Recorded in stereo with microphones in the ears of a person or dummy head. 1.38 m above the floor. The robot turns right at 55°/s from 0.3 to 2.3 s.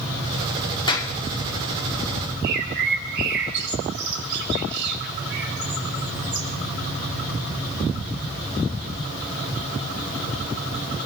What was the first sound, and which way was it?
A clap, 25° left (ahead or behind).